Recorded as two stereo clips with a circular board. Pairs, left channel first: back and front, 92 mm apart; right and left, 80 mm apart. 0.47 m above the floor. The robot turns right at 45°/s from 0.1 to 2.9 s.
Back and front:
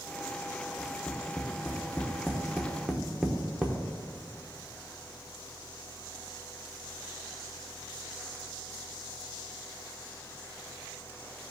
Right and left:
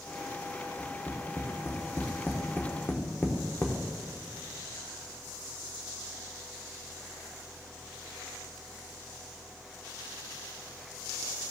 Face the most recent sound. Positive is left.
turn(degrees=-75)